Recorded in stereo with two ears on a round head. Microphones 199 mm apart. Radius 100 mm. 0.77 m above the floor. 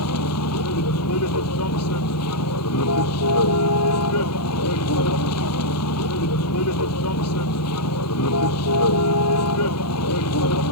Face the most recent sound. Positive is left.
turn(degrees=75)  # may be behind; listen again after turning